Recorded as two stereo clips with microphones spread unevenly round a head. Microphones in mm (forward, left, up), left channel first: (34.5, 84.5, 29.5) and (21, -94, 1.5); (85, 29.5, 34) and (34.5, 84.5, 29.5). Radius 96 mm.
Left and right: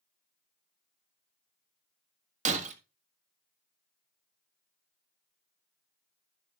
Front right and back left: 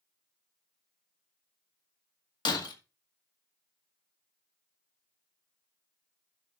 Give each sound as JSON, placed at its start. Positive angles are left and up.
{"t": 2.5, "sound": "breaking glass", "azimuth_deg": -40, "distance_m": 1.6}